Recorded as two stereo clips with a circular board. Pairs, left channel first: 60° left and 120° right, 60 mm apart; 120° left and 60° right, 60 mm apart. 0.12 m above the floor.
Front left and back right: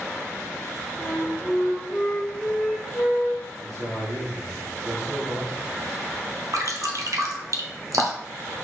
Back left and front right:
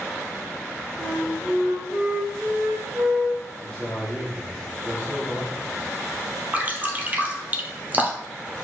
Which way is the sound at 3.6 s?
100° right.